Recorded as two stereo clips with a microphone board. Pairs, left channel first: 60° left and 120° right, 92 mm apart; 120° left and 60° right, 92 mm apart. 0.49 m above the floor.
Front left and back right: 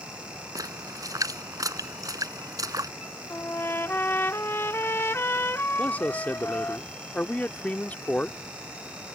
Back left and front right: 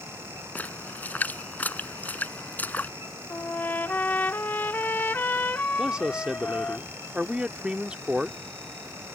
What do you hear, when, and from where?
0.6 s a splash: 170° right
3.3 s a trumpet: 80° left
5.8 s a man speaking: 10° left